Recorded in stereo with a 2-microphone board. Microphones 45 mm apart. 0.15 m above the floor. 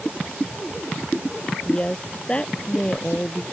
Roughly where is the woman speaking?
Left.